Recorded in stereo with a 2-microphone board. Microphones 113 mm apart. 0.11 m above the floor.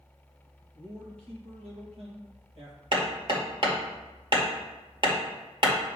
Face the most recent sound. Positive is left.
turn(degrees=-45)  # may be behind; listen again after turning